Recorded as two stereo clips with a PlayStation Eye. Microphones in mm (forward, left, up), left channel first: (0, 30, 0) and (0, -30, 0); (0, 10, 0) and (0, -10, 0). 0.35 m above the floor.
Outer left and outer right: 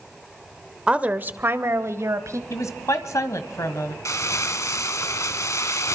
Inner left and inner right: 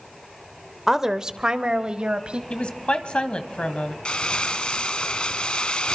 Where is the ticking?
No ticking in this recording.